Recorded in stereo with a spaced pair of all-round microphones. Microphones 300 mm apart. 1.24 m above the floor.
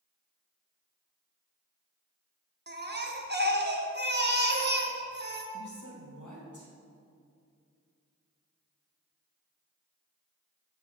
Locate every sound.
2.7 s a baby crying: 35° right (ahead or behind), 0.9 m
5.5 s a woman speaking: 75° left (ahead or behind), 2 m